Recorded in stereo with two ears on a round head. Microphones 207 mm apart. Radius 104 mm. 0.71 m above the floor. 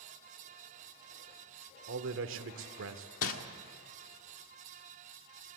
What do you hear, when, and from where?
1.9 s a man speaking: 60° right (ahead or behind), 1.7 m
3.2 s crumpling: 65° left (ahead or behind), 1.8 m